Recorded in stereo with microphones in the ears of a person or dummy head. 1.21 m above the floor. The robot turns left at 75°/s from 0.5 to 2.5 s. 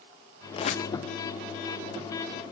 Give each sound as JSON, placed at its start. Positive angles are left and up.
{"t": 0.5, "sound": "a squeak", "side_deg": 25, "distance_m": 0.7}